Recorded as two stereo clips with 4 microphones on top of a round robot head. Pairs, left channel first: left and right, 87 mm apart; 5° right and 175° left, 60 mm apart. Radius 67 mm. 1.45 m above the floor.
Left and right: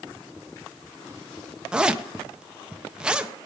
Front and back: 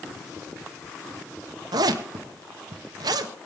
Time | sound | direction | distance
1.7 | a zipper | 170° right | 0.9 m